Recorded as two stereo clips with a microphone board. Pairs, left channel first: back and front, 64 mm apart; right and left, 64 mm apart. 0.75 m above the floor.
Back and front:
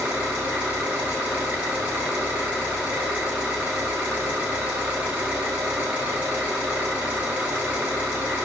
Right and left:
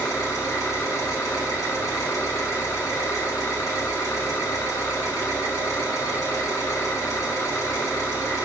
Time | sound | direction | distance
0.0 | an engine running | 70° right | 0.9 m